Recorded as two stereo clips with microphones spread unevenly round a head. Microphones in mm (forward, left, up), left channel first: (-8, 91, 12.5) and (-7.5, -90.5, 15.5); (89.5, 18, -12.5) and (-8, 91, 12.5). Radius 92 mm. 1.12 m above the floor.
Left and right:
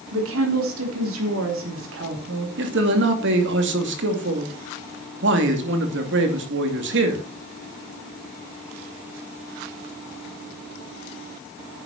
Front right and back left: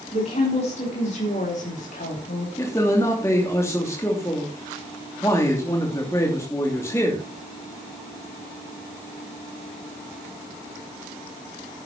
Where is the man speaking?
110° right, 2.5 m.